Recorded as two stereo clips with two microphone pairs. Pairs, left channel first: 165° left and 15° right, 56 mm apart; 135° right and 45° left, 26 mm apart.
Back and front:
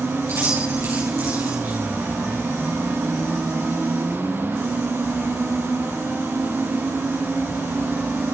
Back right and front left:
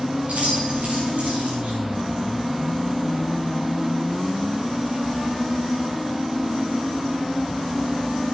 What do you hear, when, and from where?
0.2 s keys jangling: 25° left, 5.5 m